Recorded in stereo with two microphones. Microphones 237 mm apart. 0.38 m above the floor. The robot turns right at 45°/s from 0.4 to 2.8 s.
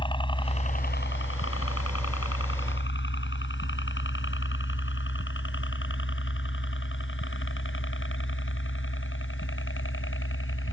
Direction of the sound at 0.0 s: 20° left (ahead or behind).